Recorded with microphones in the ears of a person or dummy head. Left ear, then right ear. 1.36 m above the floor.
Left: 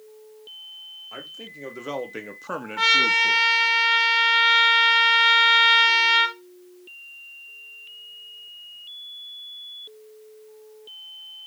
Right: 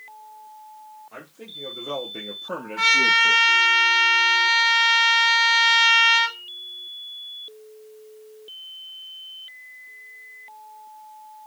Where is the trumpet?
25° left (ahead or behind), 2.5 m.